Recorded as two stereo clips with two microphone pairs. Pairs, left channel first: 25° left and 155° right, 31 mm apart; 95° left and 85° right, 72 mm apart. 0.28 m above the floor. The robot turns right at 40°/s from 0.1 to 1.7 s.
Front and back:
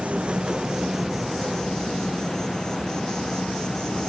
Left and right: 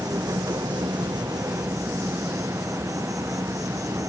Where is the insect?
110° right; by 4.1 s 45° right.